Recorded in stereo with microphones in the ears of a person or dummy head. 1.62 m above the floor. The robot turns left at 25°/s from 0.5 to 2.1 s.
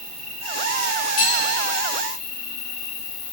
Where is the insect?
170° left, 0.7 m; by 3.3 s 130° left, 0.7 m.